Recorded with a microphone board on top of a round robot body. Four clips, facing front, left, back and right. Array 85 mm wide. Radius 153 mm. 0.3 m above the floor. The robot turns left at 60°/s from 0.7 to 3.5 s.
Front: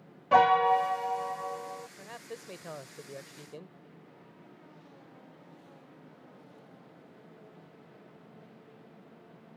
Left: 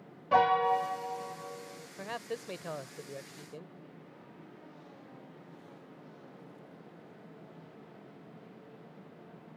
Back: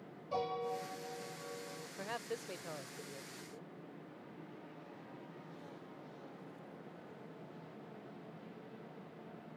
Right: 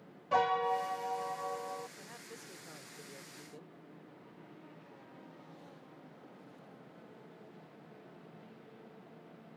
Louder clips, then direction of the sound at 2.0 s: Left 12 dB, back 2 dB; 115° left.